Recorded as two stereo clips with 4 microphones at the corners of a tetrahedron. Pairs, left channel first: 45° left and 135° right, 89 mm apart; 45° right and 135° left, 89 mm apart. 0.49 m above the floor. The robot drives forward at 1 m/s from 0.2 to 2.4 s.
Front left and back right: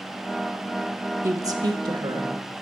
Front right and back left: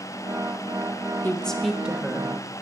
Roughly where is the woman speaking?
Right.